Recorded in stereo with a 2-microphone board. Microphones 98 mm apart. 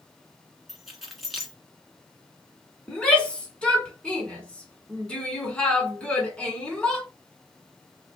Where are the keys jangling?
Centre (ahead or behind), 1.4 m.